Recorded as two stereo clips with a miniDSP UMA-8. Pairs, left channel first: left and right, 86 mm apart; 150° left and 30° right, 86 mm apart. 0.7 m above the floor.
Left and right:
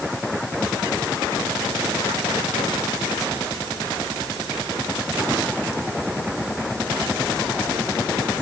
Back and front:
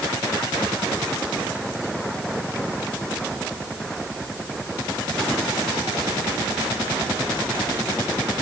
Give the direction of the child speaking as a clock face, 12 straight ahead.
I don't hear a child speaking.